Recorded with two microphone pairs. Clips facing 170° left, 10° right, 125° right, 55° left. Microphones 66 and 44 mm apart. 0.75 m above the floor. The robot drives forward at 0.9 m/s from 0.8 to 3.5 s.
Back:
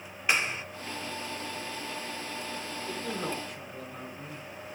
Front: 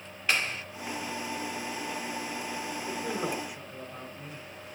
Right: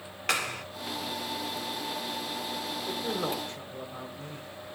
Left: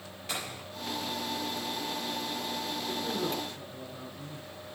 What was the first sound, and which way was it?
A clap, 120° right.